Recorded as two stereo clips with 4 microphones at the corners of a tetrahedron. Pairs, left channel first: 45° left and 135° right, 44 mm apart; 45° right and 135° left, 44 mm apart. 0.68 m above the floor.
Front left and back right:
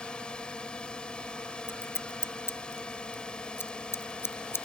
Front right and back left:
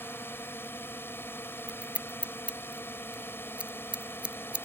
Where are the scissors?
70° left.